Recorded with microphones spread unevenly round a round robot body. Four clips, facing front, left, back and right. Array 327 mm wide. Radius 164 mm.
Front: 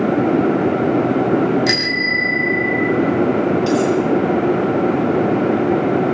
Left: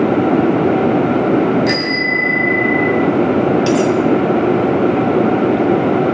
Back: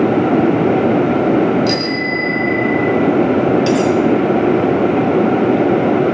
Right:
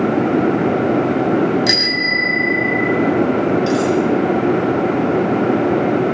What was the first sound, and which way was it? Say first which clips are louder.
A bicycle bell: left 3 dB, back 3 dB; 30° right.